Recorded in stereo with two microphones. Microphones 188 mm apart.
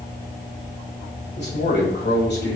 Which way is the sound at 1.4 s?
60° left (ahead or behind).